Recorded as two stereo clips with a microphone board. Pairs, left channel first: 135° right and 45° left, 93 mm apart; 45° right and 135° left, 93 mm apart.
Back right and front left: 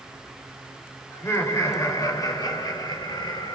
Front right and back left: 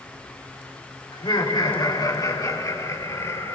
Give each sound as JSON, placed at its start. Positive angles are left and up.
{"t": 1.1, "sound": "laughter", "azimuth_deg": -75, "distance_m": 3.0}